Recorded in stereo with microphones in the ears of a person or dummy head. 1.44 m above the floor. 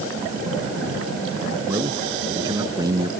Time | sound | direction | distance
1.7 | a man speaking | 25° right (ahead or behind) | ?